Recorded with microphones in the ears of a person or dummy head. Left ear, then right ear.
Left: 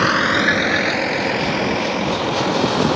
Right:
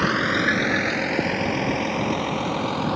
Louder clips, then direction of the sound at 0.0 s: Left 5 dB; 30° left (ahead or behind).